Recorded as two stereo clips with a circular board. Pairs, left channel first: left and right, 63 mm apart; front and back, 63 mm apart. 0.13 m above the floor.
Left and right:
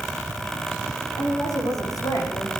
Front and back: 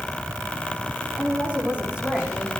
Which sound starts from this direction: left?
A woman speaking, at 1.2 s.